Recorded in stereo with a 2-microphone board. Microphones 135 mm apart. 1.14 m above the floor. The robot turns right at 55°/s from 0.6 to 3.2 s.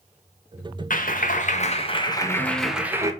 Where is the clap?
85° left, 1.1 m; by 3.1 s 155° right, 1.1 m.